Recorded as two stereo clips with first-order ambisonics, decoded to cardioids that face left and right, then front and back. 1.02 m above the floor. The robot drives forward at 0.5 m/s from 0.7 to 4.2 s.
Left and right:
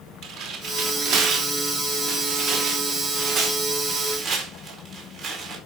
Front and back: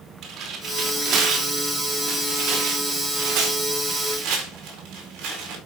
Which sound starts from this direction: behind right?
Tearing paper, at 0.2 s.